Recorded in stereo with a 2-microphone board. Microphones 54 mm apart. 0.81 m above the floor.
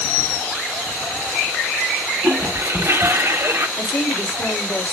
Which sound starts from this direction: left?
A woman speaking, at 3.8 s.